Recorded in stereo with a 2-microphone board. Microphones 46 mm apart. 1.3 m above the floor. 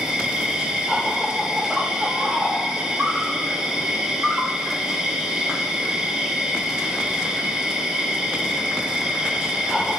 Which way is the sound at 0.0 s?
15° right (ahead or behind).